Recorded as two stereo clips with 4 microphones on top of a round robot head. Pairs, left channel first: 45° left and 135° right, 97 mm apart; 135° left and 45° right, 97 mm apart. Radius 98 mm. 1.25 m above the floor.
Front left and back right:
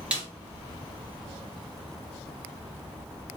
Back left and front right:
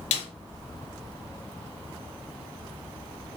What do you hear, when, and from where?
0.1 s a snare drum: 145° left, 1.0 m